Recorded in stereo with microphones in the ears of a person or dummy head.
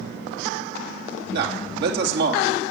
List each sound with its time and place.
1.3 s a man speaking: 65° right (ahead or behind), 2.5 m